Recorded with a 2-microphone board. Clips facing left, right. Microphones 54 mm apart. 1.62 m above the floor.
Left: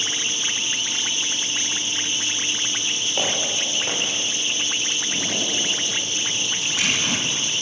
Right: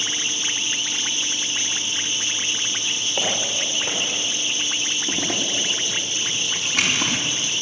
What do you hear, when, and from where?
3.2 s footsteps: centre (ahead or behind), 4.5 m
5.1 s a zipper: 65° right (ahead or behind), 3.5 m